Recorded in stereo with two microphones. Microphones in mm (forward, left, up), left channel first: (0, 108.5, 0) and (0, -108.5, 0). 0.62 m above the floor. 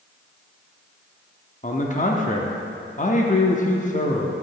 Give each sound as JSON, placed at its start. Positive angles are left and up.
{"t": 1.6, "sound": "a man speaking", "side_deg": 35, "distance_m": 0.8}